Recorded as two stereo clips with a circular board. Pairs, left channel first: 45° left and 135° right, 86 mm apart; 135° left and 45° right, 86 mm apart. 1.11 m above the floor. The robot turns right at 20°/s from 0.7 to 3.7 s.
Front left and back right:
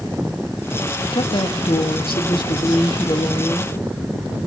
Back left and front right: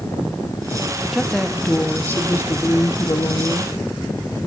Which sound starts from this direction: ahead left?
A woman speaking, at 1.1 s.